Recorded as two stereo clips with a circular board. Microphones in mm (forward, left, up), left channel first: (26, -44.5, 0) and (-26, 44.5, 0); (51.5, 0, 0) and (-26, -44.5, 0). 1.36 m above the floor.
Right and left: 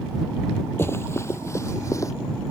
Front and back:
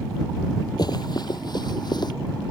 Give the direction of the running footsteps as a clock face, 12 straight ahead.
12 o'clock.